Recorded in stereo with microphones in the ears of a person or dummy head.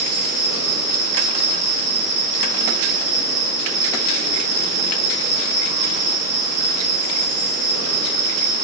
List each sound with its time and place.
0.0 s an insect: 65° right (ahead or behind), 1.1 m